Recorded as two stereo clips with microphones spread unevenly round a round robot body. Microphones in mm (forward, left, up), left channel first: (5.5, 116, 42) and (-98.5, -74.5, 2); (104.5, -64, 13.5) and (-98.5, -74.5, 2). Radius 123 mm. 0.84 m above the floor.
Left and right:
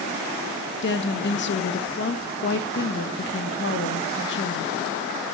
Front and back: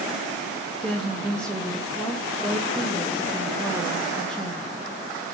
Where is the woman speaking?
90° left, 0.6 m.